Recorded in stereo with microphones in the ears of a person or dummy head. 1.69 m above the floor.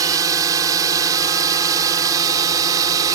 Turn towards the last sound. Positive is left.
turn(degrees=-20)  # may be behind; listen again after turning